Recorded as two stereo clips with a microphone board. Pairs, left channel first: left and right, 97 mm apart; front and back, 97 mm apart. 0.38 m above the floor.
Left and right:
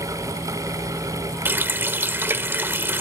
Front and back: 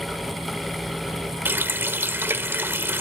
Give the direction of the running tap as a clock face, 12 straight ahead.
5 o'clock.